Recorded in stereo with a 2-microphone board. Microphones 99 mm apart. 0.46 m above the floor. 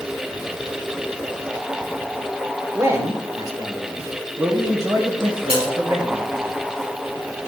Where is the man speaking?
30° right (ahead or behind), 1.3 m; by 6.3 s 50° right (ahead or behind), 3 m.